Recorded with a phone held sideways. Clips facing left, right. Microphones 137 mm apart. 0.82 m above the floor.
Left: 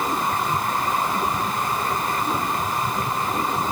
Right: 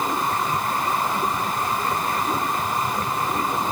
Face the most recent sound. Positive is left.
No sound to turn to.